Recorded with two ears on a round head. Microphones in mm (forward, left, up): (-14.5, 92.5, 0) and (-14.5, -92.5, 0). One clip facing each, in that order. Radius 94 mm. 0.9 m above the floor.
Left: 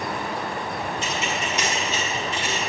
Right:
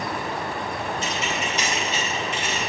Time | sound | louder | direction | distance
1.0 | keys jangling | even | 55° left (ahead or behind) | 3.5 m